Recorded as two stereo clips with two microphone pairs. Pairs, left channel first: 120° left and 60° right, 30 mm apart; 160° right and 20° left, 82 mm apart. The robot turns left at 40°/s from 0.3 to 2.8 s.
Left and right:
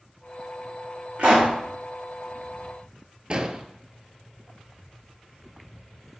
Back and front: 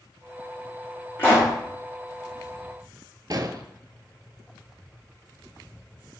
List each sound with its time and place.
1.2 s a pop: 100° right, 4.5 m; by 1.5 s 115° right, 4.5 m
3.3 s an explosion: 5° right, 0.7 m